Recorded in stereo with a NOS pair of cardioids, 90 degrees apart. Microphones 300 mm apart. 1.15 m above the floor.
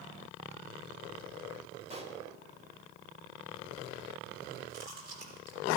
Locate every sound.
1.9 s a pop: 20° right, 2 m
4.7 s chewing: 60° right, 4.5 m